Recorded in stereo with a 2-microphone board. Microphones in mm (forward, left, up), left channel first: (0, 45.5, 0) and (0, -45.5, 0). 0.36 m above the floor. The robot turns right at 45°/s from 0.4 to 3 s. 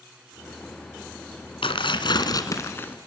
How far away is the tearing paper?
About 1.7 m.